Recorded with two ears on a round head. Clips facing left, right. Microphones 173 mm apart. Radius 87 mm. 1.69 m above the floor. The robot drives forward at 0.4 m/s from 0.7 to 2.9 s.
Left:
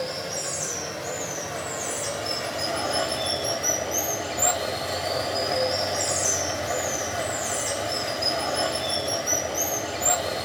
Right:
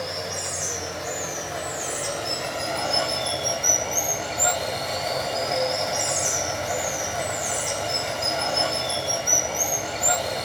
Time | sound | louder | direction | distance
0.0 | running water | even | centre (ahead or behind) | 1.2 m